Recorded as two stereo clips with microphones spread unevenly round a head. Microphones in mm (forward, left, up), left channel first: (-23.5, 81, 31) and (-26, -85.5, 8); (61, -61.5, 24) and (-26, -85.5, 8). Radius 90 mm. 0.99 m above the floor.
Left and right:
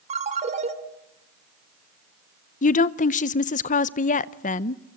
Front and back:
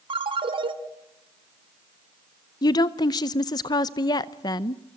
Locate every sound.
0.1 s a ringtone: 140° right, 2.5 m
2.6 s a woman speaking: 60° left, 0.7 m